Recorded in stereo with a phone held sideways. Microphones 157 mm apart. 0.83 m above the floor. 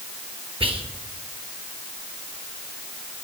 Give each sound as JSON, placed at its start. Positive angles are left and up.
{"t": 0.6, "sound": "whispering", "side_deg": -35, "distance_m": 1.0}